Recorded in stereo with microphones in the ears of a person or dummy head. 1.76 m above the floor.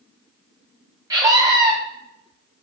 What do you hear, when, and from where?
1.1 s a scream: 30° right (ahead or behind), 1.1 m